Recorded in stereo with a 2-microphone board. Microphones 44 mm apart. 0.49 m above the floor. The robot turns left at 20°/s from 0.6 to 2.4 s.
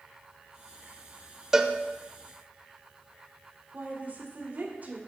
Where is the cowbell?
15° right (ahead or behind), 0.6 m.